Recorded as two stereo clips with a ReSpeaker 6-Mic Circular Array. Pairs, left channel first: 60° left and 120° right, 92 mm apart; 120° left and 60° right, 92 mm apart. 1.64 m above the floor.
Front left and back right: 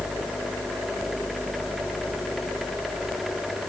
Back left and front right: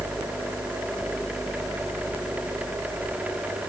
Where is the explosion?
No explosion in this recording.